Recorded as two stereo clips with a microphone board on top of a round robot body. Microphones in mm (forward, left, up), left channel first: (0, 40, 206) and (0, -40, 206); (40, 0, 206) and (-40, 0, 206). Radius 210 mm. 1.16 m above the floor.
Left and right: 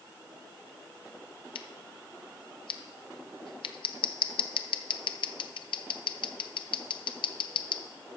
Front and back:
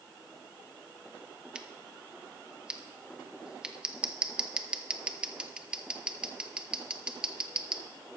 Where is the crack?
No crack in this recording.